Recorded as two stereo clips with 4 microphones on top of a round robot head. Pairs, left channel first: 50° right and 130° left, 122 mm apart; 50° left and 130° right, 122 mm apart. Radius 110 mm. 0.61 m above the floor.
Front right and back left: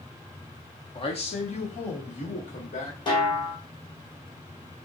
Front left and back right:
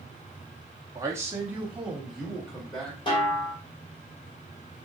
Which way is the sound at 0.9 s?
75° right.